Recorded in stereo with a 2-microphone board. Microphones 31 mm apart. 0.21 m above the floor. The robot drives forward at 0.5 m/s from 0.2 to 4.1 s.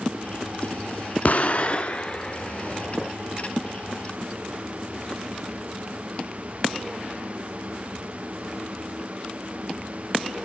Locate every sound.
1.2 s an explosion: 50° left (ahead or behind), 0.6 m; by 3.1 s 20° left (ahead or behind), 1.4 m